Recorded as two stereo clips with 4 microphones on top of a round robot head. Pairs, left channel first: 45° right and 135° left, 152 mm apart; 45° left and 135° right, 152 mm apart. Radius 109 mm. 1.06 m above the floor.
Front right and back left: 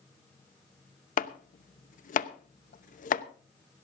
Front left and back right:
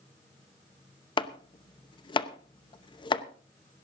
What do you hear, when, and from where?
1.2 s chopping: 15° right, 0.8 m